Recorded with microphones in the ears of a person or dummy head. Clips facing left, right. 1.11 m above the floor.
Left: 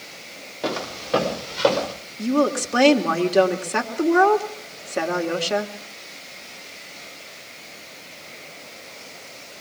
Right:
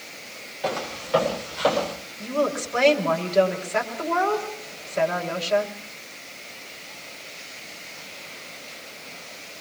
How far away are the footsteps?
About 7.5 m.